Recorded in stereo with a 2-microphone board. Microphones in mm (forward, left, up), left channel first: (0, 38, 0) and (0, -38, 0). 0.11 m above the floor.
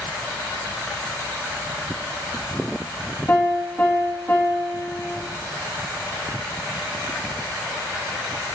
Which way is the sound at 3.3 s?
20° left (ahead or behind).